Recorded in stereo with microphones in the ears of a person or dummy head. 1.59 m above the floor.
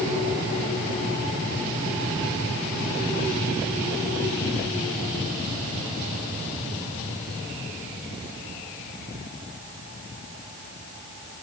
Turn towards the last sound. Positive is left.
No sound to turn to.